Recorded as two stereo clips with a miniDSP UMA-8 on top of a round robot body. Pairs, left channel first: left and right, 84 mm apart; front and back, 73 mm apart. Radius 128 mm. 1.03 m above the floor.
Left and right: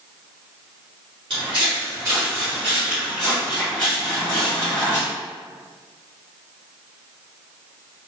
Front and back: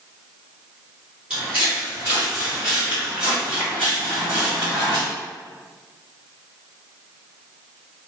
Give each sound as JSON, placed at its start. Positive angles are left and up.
{"t": 1.3, "sound": "footsteps", "azimuth_deg": -110, "distance_m": 1.2}